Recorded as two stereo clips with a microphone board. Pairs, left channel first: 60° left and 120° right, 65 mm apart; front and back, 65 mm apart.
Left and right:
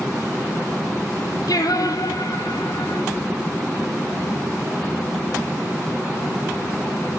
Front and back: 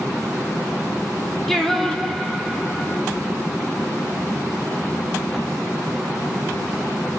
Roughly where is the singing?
Left.